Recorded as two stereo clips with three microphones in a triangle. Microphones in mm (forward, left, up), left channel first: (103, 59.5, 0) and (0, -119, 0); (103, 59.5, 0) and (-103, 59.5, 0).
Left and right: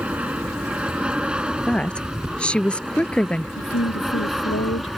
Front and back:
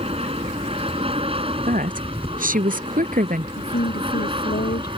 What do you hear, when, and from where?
0.0 s an aircraft: 160° left; by 5.0 s 150° left
1.6 s a woman speaking: 145° left
3.6 s a woman speaking: 40° left